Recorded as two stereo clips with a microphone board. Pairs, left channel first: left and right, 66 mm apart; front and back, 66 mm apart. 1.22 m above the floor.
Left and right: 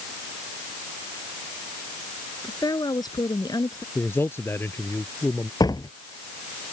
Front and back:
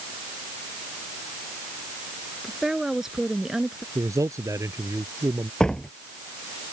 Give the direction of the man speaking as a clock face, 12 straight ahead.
7 o'clock.